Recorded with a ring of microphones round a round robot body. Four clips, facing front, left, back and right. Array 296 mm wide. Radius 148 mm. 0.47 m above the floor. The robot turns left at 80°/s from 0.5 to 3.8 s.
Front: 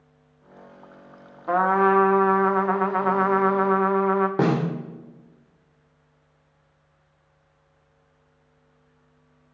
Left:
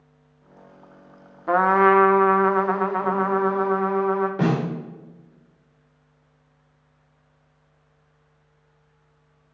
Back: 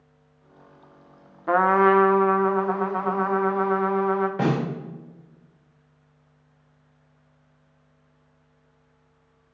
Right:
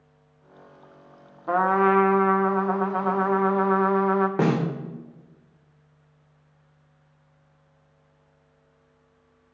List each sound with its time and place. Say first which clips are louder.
1.5 s a trumpet: left 3 dB, back 1 dB; 145° left, 0.6 m; by 4.3 s 40° right, 0.6 m
4.4 s a snare drum: even, front 2 dB; 40° right, 1.7 m